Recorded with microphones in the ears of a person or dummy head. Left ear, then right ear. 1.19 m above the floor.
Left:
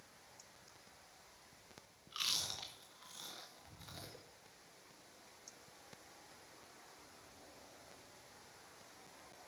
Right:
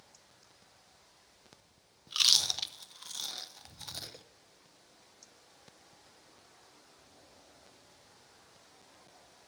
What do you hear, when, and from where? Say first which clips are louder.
2.1 s chewing: right 13 dB; 35° right (ahead or behind), 0.6 m